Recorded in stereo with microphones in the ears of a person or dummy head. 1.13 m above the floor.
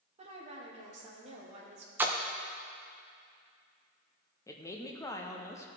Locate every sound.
0.2 s a woman speaking: 40° right (ahead or behind), 1.7 m
2.0 s a splash: 10° right (ahead or behind), 0.5 m
4.5 s a woman speaking: 10° left (ahead or behind), 0.8 m